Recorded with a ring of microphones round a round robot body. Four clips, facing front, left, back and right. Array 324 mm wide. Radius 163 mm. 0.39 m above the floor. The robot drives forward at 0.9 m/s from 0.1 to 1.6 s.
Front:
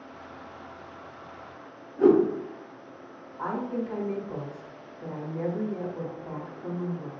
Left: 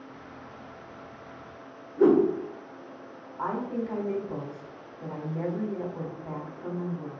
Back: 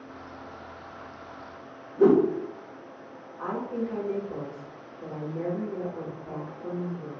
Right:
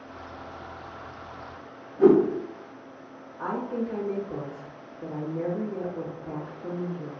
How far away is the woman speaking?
About 1.3 m.